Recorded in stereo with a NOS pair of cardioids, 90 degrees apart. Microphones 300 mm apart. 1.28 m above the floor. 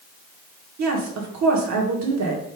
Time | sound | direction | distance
0.8 | a woman speaking | 65° right | 1.4 m